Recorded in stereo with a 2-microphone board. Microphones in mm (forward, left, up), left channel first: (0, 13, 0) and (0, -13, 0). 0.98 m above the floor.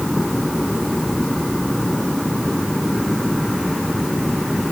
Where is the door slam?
No door slam in this recording.